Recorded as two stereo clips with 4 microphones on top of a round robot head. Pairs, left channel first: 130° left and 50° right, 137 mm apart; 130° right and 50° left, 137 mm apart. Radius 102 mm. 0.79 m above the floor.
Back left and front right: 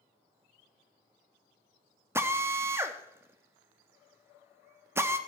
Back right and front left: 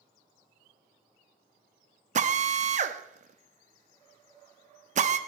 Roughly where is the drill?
Ahead.